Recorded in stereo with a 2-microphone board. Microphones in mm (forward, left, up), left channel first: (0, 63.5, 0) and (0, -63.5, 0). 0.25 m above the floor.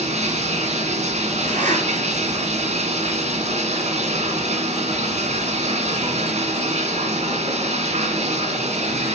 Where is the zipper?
75° right (ahead or behind), 4.5 m.